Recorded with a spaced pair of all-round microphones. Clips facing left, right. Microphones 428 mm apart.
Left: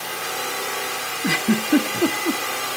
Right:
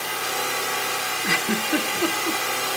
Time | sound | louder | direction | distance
1.2 | a giggle | left 7 dB | 50° left (ahead or behind) | 1.1 m